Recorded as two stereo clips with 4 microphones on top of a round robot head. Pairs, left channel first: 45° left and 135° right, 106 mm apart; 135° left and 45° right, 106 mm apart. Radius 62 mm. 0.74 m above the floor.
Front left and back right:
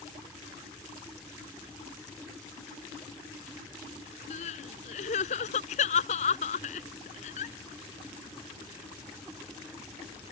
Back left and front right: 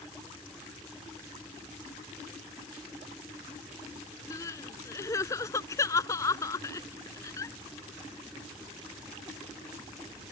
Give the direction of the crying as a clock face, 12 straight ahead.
10 o'clock.